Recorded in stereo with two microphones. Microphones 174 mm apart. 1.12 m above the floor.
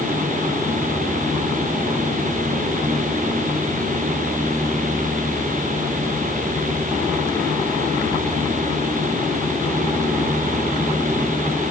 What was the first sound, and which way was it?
Only background noise.